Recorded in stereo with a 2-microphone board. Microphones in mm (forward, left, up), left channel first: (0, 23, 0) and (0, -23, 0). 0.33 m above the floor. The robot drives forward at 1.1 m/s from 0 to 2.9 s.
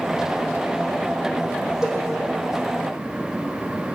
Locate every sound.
1.8 s a cowbell: 15° right (ahead or behind), 6.5 m